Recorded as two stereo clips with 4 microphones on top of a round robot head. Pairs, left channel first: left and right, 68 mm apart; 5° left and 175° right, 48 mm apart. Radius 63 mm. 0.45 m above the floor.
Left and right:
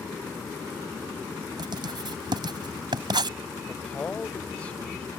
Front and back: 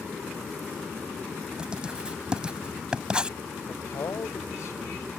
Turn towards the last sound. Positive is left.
turn(degrees=20)